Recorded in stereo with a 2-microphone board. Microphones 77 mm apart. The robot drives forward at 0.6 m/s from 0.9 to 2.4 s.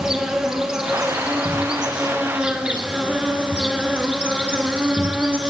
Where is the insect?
10° right (ahead or behind), 3.5 m.